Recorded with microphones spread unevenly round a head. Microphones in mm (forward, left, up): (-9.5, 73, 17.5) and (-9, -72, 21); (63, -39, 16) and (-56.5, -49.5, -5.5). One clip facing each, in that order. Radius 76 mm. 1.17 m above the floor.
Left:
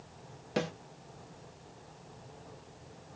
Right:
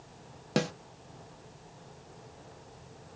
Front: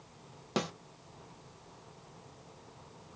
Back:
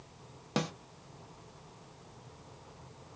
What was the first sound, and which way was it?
A snare drum, 90° right.